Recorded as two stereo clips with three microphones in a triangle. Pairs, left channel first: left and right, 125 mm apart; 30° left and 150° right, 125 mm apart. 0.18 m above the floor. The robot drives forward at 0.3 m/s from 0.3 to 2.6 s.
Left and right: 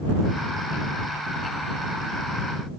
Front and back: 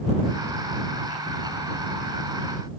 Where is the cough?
No cough in this recording.